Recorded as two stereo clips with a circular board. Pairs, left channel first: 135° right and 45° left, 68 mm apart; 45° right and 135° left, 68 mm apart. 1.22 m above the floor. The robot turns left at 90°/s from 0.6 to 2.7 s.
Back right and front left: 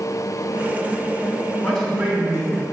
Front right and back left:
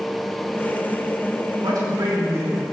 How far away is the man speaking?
About 3 m.